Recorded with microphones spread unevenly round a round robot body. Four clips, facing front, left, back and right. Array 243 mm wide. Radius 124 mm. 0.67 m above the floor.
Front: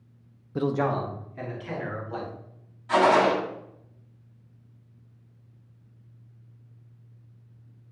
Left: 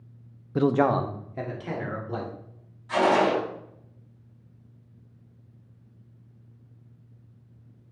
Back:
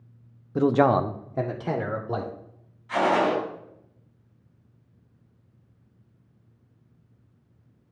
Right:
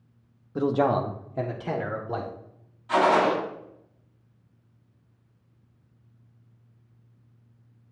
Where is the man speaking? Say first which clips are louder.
Left 1 dB, back 6 dB; 130° left, 0.5 m; by 2.3 s 160° right, 2 m.